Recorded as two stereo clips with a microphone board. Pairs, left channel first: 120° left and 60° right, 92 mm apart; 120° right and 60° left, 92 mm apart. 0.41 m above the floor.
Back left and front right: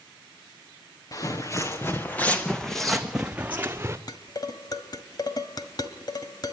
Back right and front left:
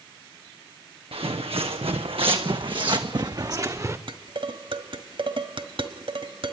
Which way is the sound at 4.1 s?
80° left.